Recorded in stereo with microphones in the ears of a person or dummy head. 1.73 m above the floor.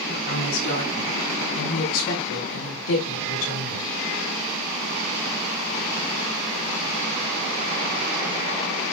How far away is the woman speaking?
About 6.5 m.